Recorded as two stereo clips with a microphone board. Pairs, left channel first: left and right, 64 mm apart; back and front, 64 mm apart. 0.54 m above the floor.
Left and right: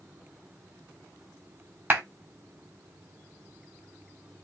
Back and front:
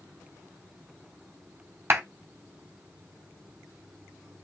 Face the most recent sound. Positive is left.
turn(degrees=-30)